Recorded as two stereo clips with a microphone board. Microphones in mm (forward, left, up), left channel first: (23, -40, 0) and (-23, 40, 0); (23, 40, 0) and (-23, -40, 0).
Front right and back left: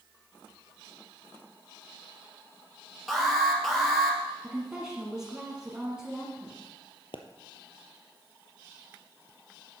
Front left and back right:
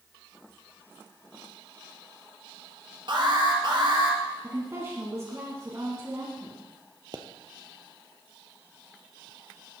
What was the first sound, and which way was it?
An alarm, 150° right.